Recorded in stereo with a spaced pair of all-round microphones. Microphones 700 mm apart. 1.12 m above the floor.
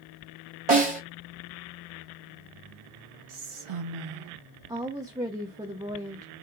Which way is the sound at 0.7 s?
65° right (ahead or behind).